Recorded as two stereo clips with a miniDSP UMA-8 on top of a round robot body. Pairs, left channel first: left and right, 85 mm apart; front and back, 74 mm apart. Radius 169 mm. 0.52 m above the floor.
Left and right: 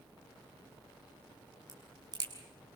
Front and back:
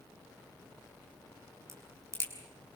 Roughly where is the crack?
Behind right.